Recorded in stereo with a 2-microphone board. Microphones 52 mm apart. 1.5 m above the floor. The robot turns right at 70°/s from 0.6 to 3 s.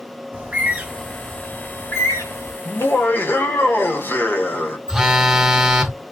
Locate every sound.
0.3 s a bird: 30° right (ahead or behind), 1.7 m; by 2.5 s 60° left (ahead or behind), 1.7 m
2.6 s laughter: 65° left (ahead or behind), 1.7 m; by 4.8 s 40° left (ahead or behind), 1.7 m
4.9 s a phone buzzing: 10° right (ahead or behind), 0.8 m